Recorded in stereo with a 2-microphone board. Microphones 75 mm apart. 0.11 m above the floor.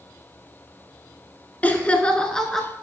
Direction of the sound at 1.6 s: 20° left (ahead or behind).